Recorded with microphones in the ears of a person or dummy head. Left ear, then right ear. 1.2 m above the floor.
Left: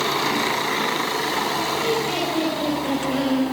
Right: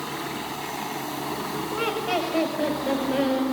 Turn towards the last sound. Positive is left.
turn(degrees=-20)  # may be behind; listen again after turning